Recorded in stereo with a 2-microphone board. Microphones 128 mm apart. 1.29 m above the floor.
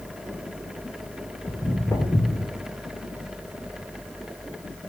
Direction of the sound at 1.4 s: 20° left (ahead or behind).